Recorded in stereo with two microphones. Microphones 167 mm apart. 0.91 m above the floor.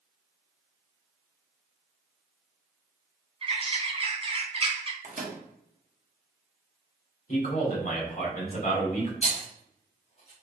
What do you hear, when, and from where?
3.4 s a bird: 35° right (ahead or behind), 0.5 m
5.0 s a microwave: 50° right (ahead or behind), 0.9 m
7.3 s a man speaking: 55° left (ahead or behind), 1.7 m
9.2 s a rattle: 40° left (ahead or behind), 1.2 m